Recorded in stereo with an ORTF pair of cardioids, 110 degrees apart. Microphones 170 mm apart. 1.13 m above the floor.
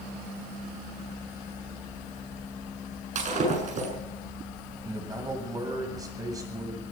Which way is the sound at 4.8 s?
20° right.